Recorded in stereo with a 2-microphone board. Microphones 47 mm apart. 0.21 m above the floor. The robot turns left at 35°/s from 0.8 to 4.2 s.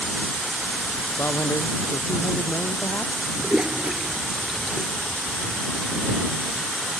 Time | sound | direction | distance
1.2 | a man speaking | 115° left | ?
3.4 | a toilet flushing | 20° right (ahead or behind) | ?